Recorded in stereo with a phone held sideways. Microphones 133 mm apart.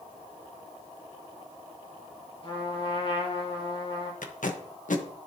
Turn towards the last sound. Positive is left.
turn(degrees=75)  # may be behind; listen again after turning